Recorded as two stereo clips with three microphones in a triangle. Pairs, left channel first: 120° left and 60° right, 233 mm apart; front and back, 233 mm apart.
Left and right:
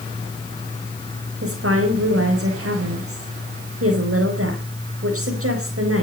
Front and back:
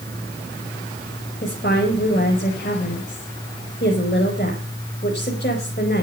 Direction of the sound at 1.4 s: 45° right.